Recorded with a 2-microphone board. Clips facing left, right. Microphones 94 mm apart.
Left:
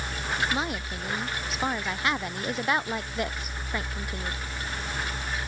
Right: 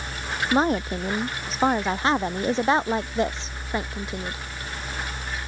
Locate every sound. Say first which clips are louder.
0.5 s a woman speaking: right 9 dB; 40° right (ahead or behind); by 4.5 s 20° right (ahead or behind)